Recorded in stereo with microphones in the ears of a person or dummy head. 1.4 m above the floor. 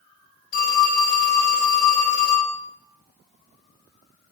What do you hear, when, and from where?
0.5 s a phone ringing: 55° left (ahead or behind), 2 m